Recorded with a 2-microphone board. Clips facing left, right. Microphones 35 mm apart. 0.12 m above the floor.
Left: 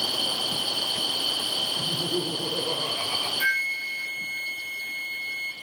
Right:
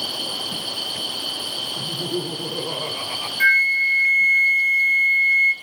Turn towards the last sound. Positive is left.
turn(degrees=-50)  # may be behind; listen again after turning